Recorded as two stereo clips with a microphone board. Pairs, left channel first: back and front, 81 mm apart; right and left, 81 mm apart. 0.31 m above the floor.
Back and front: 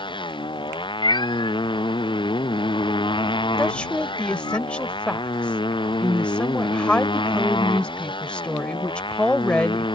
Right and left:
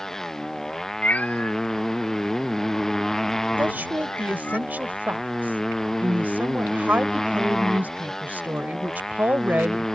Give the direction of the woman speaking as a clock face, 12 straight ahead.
8 o'clock.